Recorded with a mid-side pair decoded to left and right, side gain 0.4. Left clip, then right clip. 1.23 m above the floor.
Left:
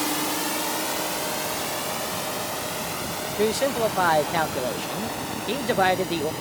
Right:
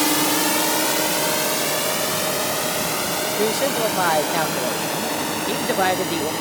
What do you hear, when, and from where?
0.0 s a drone: 55° right
3.4 s a man speaking: straight ahead